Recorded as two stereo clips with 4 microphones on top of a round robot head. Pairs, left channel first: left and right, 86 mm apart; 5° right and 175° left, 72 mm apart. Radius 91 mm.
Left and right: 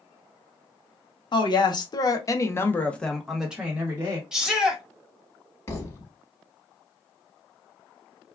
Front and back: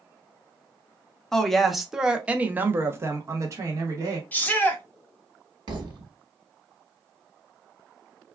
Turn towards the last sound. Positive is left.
turn(degrees=150)